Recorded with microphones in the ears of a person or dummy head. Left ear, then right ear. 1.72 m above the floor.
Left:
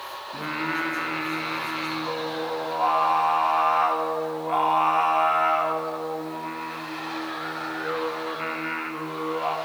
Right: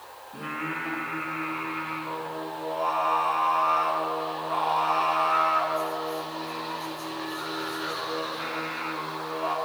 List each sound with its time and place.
0.3 s singing: 45° left (ahead or behind), 2.0 m